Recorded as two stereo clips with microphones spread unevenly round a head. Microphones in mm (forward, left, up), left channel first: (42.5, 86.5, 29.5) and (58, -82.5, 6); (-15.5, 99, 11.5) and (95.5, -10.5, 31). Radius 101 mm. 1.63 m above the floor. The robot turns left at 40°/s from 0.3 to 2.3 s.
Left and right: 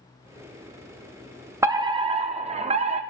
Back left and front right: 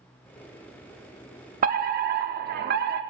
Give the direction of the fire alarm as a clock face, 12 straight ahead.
1 o'clock.